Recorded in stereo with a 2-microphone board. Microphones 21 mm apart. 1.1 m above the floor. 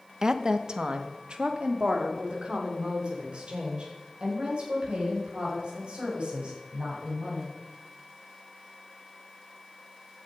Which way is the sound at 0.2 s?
30° right (ahead or behind).